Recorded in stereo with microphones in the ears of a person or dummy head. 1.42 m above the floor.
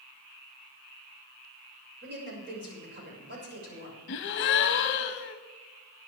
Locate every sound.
2.0 s a woman speaking: 50° right (ahead or behind), 6 m
4.1 s a gasp: 40° left (ahead or behind), 0.8 m